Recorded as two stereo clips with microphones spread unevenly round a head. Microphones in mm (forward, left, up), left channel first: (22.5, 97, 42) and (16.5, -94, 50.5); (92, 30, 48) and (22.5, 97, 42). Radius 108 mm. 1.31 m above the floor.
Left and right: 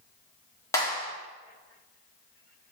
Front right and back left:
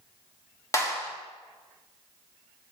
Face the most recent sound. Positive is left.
turn(degrees=15)